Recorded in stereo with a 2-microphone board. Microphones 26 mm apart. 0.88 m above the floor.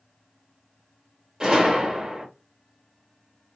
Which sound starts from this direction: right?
A gunshot, at 1.4 s.